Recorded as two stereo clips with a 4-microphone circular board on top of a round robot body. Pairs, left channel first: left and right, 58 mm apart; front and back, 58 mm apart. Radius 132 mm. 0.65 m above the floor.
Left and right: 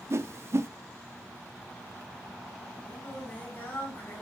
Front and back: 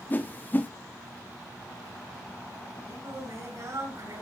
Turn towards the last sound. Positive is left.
turn(degrees=150)